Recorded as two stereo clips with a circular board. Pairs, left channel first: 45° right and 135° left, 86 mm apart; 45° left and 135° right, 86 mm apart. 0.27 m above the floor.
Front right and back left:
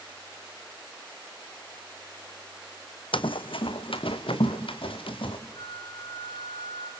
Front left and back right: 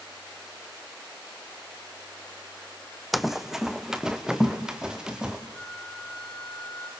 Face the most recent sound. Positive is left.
turn(degrees=-35)